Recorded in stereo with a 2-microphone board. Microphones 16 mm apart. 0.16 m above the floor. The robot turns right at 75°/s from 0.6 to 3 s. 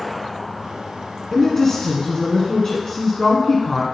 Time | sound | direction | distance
1.3 | a woman speaking | 25° left | 1.5 m